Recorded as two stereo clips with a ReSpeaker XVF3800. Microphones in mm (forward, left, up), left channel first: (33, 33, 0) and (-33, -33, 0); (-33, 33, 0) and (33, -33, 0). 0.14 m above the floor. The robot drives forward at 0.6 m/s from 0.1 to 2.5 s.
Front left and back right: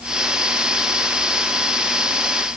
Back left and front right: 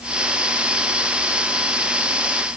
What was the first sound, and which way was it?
Only background noise.